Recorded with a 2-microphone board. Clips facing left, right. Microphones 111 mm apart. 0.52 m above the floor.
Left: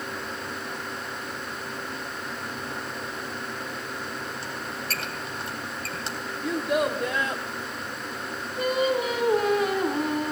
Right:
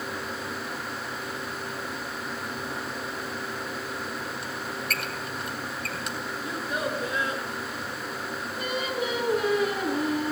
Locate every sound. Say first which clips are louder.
4.4 s a squeak: right 1 dB; 30° left (ahead or behind), 2.5 m
6.4 s a child speaking: left 8 dB; 80° left, 2.5 m
8.6 s singing: left 7 dB; 40° left (ahead or behind), 4 m